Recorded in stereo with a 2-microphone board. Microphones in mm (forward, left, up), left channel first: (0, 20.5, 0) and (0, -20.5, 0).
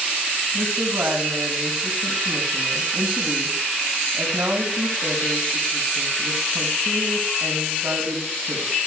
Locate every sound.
0.5 s a woman speaking: 75° right (ahead or behind), 4.5 m